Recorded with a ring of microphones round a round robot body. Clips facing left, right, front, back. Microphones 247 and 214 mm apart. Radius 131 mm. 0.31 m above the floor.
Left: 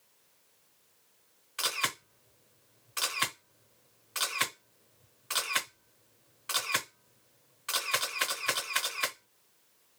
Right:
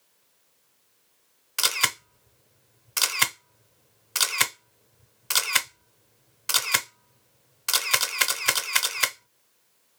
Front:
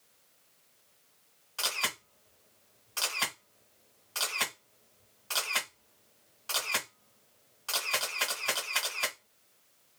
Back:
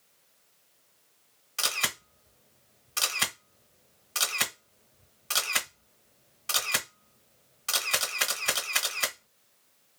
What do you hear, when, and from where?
1.6 s a camera shutter: 110° right, 0.8 m